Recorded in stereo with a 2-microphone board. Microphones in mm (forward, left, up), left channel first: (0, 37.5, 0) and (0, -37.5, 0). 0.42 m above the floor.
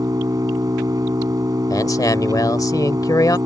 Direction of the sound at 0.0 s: 50° right (ahead or behind).